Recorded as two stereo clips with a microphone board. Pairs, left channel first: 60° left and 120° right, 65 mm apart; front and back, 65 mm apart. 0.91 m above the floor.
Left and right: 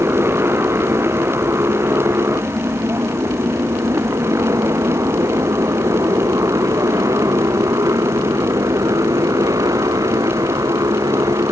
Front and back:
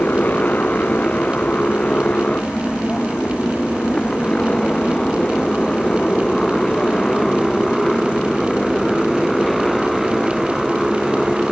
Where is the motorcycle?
70° right; by 11.5 s 95° right.